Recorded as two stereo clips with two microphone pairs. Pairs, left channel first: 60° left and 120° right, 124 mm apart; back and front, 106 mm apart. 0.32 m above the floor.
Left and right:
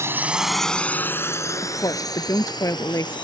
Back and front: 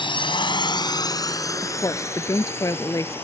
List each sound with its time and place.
0.0 s a drone: straight behind; by 3.2 s 110° left
1.6 s a woman speaking: 125° left